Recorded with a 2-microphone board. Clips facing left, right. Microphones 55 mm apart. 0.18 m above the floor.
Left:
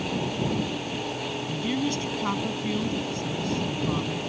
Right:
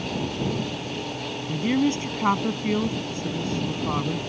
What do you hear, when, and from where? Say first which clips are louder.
1.5 s a woman speaking: right 6 dB; 35° right (ahead or behind)